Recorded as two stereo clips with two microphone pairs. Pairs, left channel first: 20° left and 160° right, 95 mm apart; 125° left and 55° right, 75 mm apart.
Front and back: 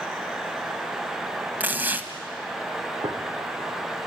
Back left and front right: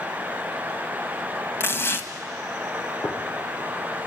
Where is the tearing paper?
150° left, 1.6 m.